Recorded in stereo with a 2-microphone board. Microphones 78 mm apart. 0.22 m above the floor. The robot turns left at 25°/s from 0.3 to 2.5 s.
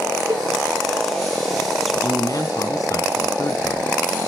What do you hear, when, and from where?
0.3 s a cowbell: 55° right (ahead or behind), 1.1 m; by 0.4 s 50° right (ahead or behind), 1.1 m
1.9 s a man speaking: 45° left (ahead or behind), 2 m; by 4.3 s 50° left (ahead or behind), 2 m